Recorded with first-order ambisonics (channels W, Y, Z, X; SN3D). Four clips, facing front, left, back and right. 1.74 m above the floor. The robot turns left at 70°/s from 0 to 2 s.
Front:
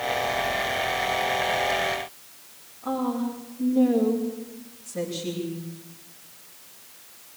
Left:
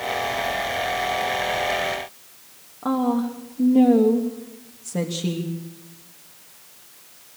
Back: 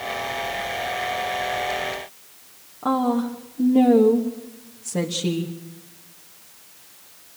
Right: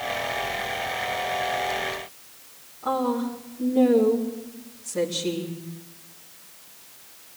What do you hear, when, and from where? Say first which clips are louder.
2.8 s a woman speaking: left 3 dB, back 6 dB; 145° left, 3 m